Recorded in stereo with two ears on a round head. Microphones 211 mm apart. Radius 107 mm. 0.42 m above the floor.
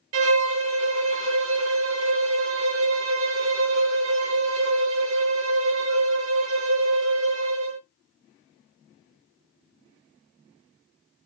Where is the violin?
60° right (ahead or behind), 0.6 m.